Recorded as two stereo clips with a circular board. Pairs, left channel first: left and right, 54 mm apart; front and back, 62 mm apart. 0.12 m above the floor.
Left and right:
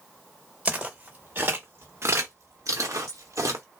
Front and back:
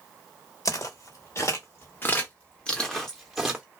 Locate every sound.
0.7 s footsteps: 25° right, 1.4 m; by 3.6 s 105° right, 1.0 m